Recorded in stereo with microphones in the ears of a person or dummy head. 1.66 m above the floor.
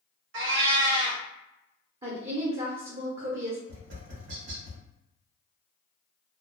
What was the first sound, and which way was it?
A cat meowing, 60° right (ahead or behind).